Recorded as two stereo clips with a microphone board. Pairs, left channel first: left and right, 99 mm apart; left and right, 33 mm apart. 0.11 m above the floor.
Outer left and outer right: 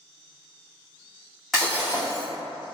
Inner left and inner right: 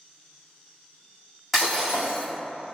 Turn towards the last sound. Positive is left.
turn(degrees=0)  # may be behind; listen again after turning